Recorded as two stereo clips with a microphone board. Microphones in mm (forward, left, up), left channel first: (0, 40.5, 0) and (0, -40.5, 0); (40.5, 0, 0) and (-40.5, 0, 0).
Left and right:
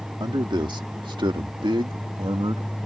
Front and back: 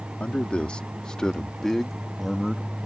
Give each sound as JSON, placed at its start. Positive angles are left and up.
{"t": 0.2, "sound": "a man speaking", "azimuth_deg": -75}